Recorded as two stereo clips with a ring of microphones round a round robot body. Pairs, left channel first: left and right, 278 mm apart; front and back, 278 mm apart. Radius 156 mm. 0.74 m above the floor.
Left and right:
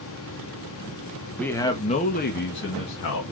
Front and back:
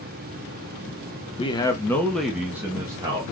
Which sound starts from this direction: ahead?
A man speaking, at 1.4 s.